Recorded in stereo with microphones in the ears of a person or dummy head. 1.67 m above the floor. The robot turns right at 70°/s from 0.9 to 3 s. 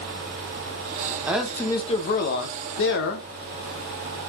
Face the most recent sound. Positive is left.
turn(degrees=105)